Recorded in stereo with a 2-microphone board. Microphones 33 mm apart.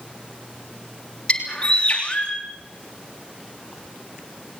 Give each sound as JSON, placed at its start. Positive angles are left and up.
{"t": 1.3, "sound": "a bird", "side_deg": 35, "distance_m": 3.0}